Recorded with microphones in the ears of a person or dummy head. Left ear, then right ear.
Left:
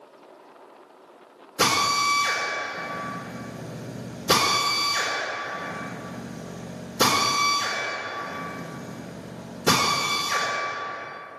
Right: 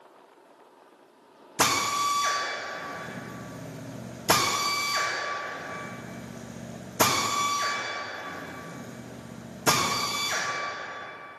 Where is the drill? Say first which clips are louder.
Left 3 dB; 55° right (ahead or behind), 3 m.